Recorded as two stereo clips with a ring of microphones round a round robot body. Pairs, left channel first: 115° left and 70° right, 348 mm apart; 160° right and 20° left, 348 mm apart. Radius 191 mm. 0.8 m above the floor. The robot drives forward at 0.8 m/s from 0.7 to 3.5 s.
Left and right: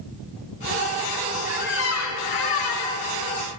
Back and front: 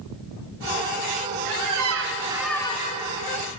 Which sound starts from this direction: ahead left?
A squeak, at 1.4 s.